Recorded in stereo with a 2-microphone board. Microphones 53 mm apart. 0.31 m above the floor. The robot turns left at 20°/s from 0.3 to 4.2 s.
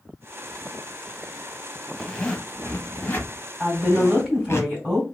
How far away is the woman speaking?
About 2 m.